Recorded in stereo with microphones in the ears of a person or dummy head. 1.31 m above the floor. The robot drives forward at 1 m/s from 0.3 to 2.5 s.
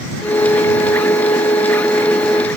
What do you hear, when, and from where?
Only background noise.